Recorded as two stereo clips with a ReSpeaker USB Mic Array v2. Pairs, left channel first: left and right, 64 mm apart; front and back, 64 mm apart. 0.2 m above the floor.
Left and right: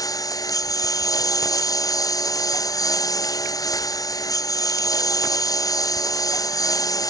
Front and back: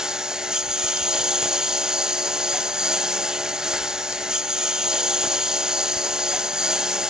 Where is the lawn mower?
100° left.